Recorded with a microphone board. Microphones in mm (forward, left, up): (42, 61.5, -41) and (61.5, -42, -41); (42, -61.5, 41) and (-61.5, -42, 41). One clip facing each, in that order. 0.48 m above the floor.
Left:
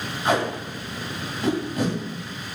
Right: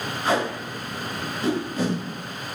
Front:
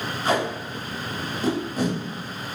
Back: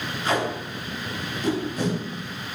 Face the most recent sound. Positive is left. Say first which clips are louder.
# left 1 dB, front 1 dB
turn(degrees=25)